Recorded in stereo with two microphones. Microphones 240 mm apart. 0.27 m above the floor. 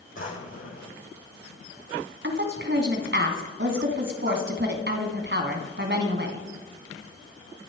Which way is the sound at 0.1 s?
55° left (ahead or behind).